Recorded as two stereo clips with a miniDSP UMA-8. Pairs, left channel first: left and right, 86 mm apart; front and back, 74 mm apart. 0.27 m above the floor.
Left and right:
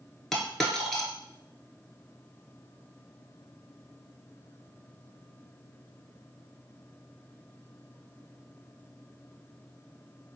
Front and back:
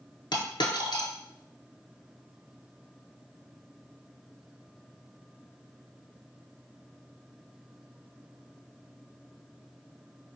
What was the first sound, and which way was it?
A dropped coin, straight ahead.